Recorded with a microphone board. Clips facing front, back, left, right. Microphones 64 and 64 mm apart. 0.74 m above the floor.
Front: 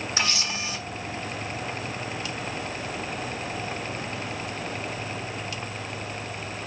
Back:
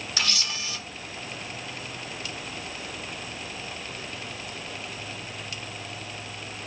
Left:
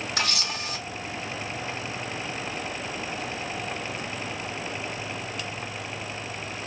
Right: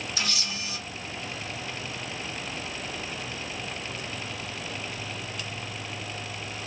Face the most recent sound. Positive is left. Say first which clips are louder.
# front 1 dB, left 5 dB
turn(degrees=65)